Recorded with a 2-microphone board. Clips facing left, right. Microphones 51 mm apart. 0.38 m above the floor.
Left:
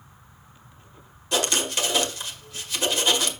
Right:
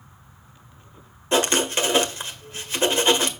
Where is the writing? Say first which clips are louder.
Right 4 dB; 30° right (ahead or behind), 1.5 m.